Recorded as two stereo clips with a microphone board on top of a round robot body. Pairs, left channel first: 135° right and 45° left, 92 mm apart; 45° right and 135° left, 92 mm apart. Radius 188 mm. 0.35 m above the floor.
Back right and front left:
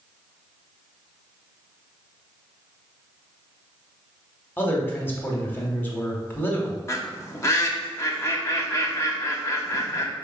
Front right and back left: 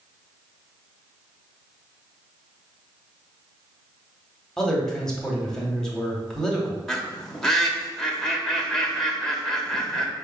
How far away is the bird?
About 1.1 m.